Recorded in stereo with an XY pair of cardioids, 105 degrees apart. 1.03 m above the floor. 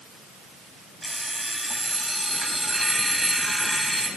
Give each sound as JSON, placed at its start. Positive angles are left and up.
{"t": 1.0, "sound": "an alarm clock", "azimuth_deg": -10, "distance_m": 2.5}